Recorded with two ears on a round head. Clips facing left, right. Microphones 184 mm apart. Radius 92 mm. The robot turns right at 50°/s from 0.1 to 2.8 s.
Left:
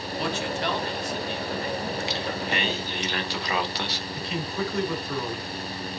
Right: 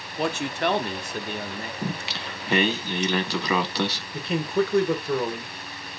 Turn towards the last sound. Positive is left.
turn(degrees=-45)  # may be behind; listen again after turning